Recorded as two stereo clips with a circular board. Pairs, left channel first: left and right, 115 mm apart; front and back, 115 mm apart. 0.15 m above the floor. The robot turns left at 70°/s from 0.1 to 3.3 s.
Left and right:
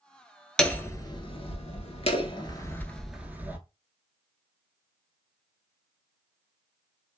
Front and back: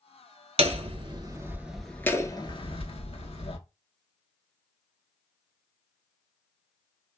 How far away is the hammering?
About 0.6 m.